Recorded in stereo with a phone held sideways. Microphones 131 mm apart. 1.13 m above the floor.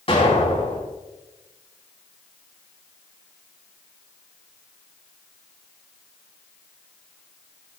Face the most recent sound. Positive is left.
turn(degrees=45)  # may be behind; listen again after turning